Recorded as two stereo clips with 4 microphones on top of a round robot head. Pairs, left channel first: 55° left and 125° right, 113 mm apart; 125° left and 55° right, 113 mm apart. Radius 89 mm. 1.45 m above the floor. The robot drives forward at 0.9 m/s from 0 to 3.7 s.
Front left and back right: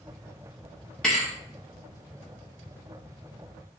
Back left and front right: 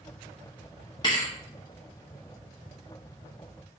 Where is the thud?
140° left, 0.7 m; by 1.3 s 160° left, 0.8 m.